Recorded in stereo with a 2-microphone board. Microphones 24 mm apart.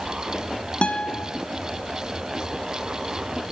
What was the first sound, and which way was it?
A guitar, 65° left (ahead or behind).